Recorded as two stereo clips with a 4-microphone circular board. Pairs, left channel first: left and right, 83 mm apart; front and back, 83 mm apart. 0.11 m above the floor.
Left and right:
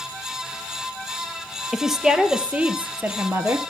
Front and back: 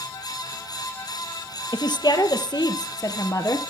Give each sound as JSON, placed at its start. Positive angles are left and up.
{"t": 1.7, "sound": "a woman speaking", "azimuth_deg": -5, "distance_m": 2.5}